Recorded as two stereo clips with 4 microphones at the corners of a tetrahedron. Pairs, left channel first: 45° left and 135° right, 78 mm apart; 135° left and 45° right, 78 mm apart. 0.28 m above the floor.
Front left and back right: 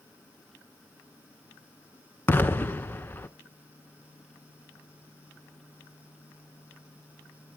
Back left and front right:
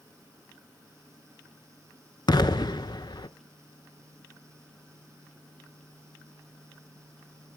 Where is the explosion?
110° left, 0.6 m.